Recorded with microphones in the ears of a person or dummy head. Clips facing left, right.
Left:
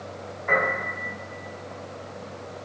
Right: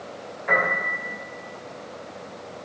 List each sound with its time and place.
0.5 s a piano: 50° right (ahead or behind), 1.8 m